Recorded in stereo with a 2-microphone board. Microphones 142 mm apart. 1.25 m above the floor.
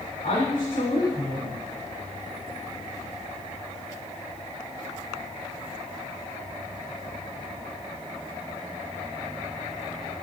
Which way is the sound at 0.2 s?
65° left (ahead or behind).